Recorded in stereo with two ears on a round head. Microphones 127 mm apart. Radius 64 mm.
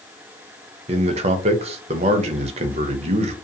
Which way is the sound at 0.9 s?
45° right (ahead or behind).